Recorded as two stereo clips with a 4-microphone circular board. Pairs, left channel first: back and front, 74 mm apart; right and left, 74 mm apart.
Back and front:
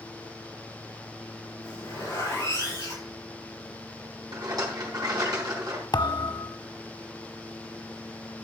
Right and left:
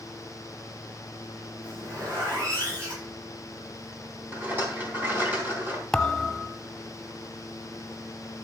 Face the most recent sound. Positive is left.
turn(degrees=-170)